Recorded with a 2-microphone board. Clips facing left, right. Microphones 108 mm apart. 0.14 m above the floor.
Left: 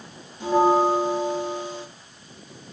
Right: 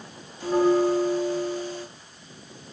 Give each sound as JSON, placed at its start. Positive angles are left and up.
{"t": 0.4, "sound": "a bell", "side_deg": 15, "distance_m": 1.8}